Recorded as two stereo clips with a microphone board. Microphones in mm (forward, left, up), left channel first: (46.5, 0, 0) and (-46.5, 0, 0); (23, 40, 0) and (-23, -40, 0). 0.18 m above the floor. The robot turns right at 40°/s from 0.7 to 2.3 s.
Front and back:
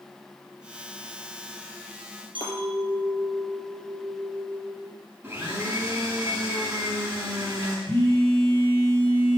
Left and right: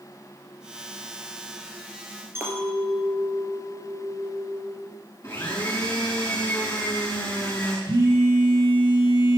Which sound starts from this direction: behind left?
A blender, at 5.2 s.